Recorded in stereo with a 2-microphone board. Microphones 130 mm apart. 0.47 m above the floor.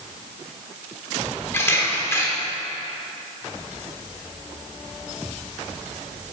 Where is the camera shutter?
20° left (ahead or behind), 1.1 m.